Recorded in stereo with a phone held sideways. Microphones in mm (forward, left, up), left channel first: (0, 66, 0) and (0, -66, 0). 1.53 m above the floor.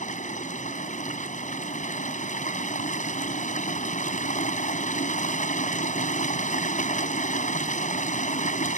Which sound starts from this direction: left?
Running water, at 0.0 s.